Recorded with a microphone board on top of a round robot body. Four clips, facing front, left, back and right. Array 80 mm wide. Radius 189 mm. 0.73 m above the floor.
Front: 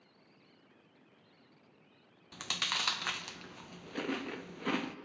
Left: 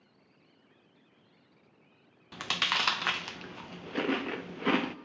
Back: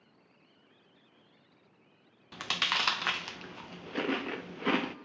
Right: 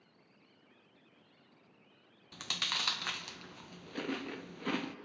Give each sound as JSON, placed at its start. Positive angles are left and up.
{"t": 2.3, "sound": "chewing", "azimuth_deg": 125, "distance_m": 0.6}